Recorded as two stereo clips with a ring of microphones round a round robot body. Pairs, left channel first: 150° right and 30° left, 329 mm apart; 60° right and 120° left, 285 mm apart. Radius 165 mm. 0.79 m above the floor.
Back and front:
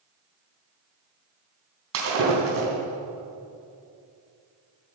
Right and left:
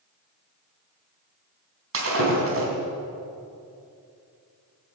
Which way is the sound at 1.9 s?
80° left.